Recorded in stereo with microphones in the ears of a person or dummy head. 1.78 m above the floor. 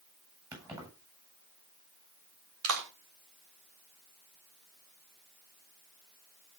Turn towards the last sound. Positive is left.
turn(degrees=-80)